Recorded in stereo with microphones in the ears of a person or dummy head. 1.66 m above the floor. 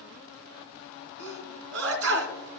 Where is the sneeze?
85° right, 2.5 m.